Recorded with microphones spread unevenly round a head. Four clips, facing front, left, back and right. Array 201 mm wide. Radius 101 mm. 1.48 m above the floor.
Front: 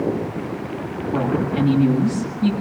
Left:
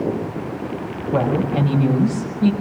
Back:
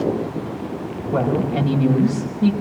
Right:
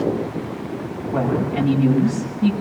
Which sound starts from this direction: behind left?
A woman speaking, at 1.1 s.